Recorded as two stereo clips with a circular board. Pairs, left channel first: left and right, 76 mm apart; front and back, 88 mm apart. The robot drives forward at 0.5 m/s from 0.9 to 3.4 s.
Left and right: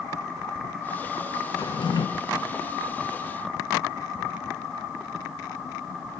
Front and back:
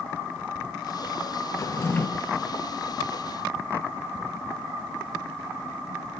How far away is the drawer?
About 0.8 m.